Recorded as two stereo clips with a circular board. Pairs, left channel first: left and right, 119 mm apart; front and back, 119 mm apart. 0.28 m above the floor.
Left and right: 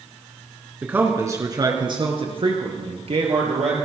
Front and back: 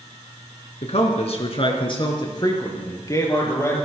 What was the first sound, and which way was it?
A man speaking, 15° right.